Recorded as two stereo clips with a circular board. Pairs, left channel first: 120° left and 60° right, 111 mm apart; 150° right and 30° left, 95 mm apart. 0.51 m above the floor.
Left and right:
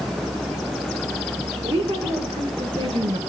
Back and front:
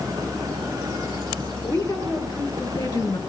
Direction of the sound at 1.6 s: 80° right.